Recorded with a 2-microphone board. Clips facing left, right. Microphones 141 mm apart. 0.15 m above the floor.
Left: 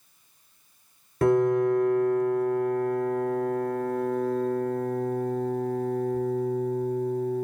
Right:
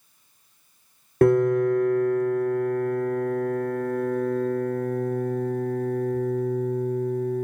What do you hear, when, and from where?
1.2 s a piano: 60° right (ahead or behind), 0.8 m